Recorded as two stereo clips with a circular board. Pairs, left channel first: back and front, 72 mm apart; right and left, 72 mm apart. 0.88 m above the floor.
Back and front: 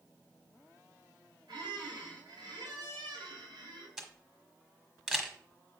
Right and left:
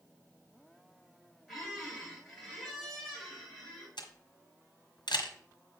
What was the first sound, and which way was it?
A squeak, straight ahead.